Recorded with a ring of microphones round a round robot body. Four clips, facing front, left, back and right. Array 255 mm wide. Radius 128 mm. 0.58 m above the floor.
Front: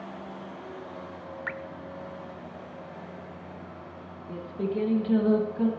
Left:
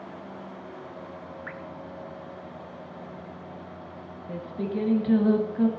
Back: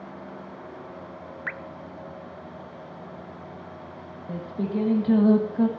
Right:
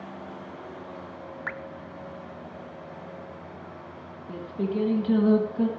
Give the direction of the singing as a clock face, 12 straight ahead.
7 o'clock.